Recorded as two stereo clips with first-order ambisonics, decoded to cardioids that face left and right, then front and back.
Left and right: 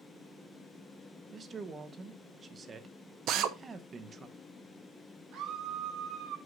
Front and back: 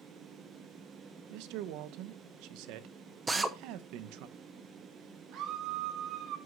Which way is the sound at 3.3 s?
105° right.